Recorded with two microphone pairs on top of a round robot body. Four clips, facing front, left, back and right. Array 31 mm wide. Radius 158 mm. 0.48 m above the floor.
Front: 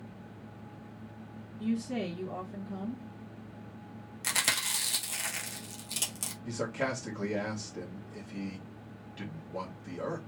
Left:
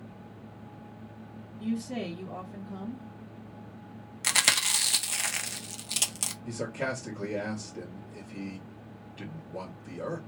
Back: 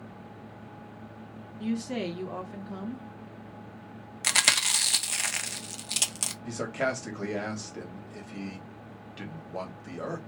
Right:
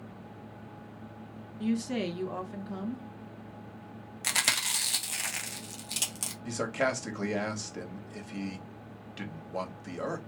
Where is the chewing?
155° left, 1.1 m.